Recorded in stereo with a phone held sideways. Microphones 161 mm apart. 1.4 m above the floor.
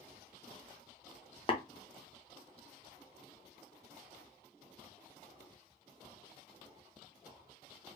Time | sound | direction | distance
1.5 | tapping | 35° left (ahead or behind) | 0.7 m